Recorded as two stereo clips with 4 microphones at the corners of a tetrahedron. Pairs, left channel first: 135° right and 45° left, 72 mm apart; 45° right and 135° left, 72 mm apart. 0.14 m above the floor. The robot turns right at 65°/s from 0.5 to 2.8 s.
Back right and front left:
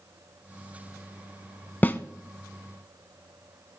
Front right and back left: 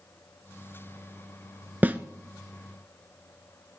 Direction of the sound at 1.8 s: 175° left.